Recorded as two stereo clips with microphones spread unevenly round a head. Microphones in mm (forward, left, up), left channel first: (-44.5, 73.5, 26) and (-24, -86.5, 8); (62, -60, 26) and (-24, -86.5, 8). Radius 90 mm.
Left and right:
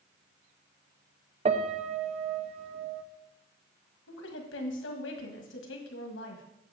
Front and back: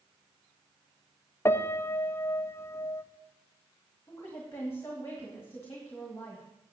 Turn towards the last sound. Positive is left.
turn(degrees=95)